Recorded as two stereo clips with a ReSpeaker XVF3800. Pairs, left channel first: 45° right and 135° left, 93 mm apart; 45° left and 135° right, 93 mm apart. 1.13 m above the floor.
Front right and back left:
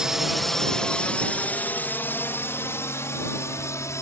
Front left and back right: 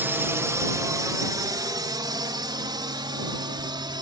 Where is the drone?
150° right; by 4.0 s 100° right.